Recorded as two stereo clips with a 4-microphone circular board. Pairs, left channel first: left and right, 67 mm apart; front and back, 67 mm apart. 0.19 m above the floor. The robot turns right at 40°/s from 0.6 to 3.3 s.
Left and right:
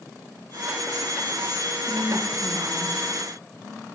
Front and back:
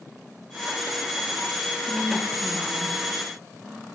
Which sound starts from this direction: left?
A woman speaking, at 1.8 s.